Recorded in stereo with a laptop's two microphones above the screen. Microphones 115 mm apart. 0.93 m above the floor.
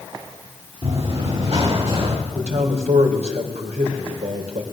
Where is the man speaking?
80° right, 4 m.